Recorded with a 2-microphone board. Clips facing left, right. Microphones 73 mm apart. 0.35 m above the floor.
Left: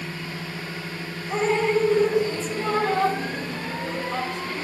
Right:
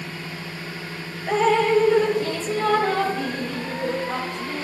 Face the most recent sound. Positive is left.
turn(degrees=-85)